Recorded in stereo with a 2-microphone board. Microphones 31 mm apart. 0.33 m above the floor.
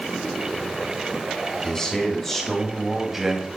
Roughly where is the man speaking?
Left.